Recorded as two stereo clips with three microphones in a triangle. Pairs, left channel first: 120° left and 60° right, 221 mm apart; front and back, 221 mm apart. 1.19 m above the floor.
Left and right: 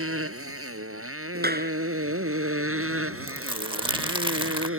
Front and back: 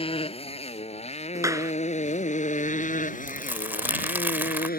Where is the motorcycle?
65° right; by 4.8 s 45° right.